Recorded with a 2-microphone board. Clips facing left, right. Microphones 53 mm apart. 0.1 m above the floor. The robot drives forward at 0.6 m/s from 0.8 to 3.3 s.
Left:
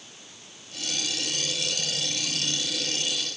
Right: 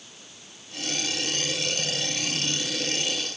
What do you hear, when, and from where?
Only background noise.